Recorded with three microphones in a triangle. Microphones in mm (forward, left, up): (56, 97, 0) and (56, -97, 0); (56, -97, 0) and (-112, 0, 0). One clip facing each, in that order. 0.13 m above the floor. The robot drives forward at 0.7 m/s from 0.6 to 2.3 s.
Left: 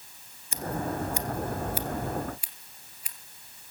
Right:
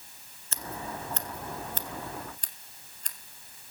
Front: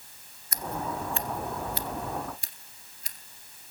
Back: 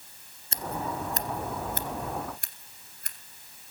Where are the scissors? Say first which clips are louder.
Left 7 dB, even; 150° left, 1.2 m; by 3.2 s 170° left, 2.0 m.